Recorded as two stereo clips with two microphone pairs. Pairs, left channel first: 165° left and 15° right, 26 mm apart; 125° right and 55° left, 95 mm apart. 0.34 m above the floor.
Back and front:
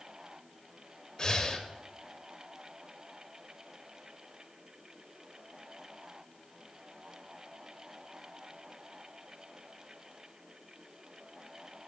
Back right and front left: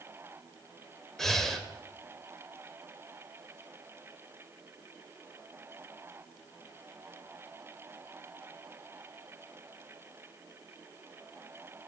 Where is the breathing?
150° left, 0.7 m.